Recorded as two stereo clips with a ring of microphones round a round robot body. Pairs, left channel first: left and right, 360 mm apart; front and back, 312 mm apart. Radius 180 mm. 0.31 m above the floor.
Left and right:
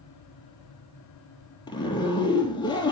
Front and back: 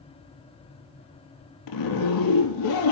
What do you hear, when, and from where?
1.7 s a zipper: 10° left, 2.5 m